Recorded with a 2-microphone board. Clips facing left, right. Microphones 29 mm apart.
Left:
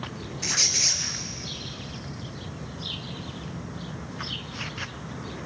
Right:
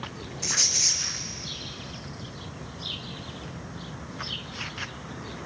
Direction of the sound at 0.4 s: 15° left (ahead or behind).